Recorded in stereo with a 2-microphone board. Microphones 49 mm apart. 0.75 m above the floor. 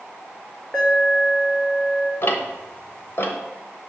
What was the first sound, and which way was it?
An alarm, 15° left (ahead or behind).